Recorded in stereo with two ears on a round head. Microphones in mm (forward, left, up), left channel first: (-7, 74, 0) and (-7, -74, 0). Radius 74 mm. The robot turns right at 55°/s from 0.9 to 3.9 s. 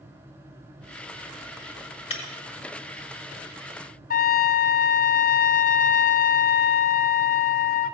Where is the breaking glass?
40° left (ahead or behind), 3 m; by 2.2 s 35° left (ahead or behind), 3 m.